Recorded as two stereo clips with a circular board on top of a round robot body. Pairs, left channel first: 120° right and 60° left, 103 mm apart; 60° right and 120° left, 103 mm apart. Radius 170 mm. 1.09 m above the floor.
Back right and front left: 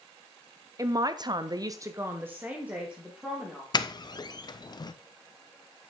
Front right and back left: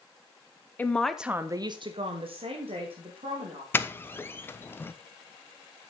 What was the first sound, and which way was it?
A man speaking, 10° left.